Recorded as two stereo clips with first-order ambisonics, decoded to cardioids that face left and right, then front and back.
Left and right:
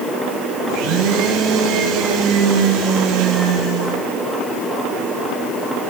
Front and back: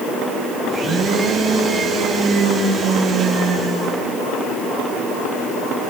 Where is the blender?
110° right, 4 m.